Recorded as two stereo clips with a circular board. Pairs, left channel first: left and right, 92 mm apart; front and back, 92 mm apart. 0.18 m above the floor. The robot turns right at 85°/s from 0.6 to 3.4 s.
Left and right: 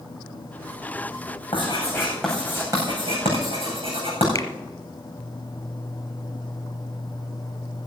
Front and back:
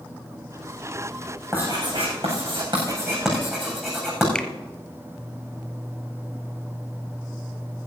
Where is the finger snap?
75° left, 1.3 m.